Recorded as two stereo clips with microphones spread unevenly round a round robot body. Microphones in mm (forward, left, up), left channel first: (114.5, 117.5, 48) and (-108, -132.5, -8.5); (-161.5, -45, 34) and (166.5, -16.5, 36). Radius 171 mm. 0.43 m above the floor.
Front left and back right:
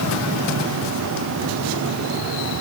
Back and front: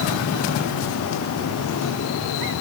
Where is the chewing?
I don't hear chewing.